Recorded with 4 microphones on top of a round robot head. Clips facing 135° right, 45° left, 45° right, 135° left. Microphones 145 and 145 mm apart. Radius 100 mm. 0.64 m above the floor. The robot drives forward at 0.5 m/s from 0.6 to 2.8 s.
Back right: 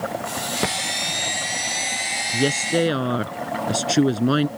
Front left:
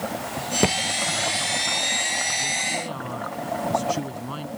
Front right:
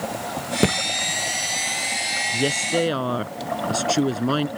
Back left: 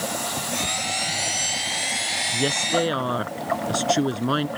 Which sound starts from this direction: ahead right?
A thud, at 0.6 s.